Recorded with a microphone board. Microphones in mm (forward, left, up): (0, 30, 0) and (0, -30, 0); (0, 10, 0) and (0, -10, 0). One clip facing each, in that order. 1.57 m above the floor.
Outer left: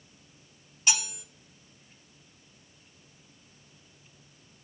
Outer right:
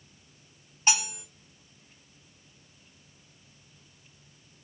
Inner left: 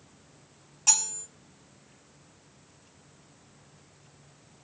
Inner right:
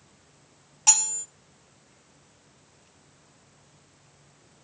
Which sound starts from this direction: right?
Cutlery clinking, at 0.9 s.